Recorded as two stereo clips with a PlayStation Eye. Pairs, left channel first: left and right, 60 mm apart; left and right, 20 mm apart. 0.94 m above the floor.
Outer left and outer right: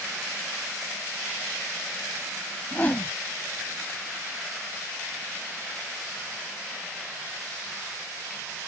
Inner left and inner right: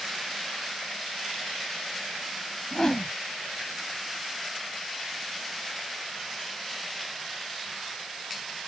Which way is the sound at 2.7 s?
30° left (ahead or behind).